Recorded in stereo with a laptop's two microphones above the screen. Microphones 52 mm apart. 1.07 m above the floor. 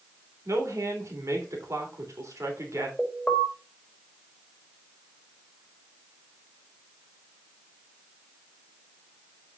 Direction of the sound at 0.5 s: 75° right (ahead or behind).